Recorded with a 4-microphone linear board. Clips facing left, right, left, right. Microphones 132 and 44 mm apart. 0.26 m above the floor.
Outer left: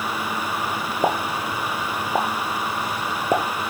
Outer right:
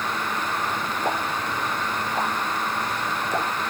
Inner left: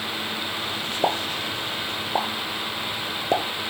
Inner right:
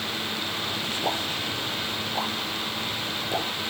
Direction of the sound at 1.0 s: 65° left (ahead or behind).